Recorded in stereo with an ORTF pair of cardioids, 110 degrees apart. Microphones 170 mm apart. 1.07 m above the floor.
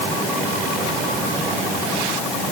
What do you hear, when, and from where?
Only background noise.